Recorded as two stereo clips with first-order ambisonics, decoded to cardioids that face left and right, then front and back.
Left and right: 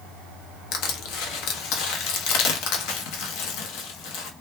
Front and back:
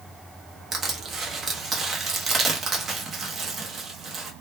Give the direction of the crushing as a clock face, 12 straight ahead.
8 o'clock.